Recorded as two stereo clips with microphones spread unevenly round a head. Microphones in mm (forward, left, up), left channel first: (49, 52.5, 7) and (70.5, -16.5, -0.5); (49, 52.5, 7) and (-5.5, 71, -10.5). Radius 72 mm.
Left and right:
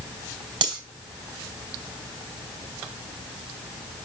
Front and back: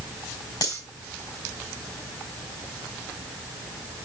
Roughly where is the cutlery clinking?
Right.